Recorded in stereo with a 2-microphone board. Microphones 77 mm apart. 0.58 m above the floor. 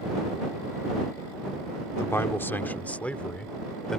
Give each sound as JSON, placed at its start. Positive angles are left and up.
{"t": 2.0, "sound": "a man speaking", "side_deg": 35}